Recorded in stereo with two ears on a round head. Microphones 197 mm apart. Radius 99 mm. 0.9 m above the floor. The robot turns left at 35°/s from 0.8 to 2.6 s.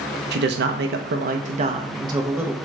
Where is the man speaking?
110° right, 0.5 m; by 2.5 s 170° right, 0.5 m.